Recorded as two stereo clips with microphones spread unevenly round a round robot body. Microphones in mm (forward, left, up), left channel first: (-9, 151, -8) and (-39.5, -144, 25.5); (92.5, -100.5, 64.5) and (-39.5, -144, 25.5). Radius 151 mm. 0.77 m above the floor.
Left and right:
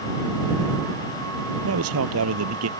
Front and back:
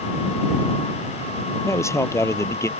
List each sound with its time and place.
1.6 s a man speaking: 50° right